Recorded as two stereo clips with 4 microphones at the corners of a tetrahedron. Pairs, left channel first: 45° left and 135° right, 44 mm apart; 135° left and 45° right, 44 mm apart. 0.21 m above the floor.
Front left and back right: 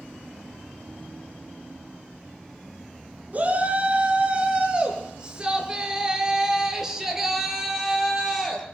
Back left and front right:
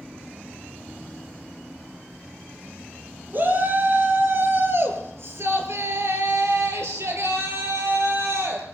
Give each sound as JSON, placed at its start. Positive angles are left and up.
{"t": 3.3, "sound": "a shout", "azimuth_deg": -85, "distance_m": 4.0}